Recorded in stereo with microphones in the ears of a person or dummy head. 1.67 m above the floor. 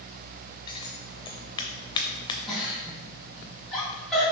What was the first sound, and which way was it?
Scissors, 25° left (ahead or behind).